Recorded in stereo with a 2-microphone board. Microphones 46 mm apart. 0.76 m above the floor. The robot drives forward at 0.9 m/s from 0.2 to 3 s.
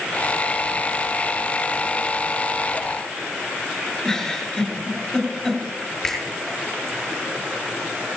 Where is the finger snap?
10° left (ahead or behind), 5 m.